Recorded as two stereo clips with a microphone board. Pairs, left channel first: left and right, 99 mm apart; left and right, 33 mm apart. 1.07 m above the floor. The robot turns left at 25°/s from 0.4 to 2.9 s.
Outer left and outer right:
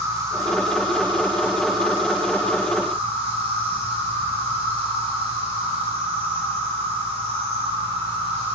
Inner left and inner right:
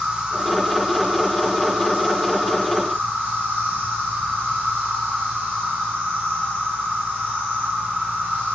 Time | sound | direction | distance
0.0 | an insect | 30° right | 4.5 m